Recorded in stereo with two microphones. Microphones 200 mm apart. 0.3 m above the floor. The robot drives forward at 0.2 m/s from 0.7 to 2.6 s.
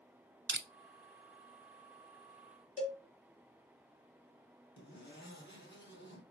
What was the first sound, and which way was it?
Crushing, 70° right (ahead or behind).